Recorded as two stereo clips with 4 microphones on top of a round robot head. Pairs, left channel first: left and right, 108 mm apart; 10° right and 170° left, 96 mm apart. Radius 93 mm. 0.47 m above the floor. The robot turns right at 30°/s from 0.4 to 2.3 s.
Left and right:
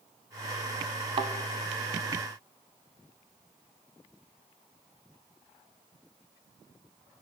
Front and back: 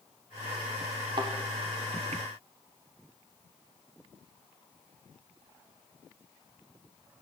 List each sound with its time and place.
1.2 s a thud: 130° right, 0.8 m; by 1.3 s 125° right, 0.8 m